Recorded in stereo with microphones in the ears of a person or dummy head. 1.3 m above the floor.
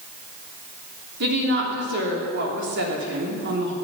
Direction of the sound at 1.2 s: 60° right (ahead or behind).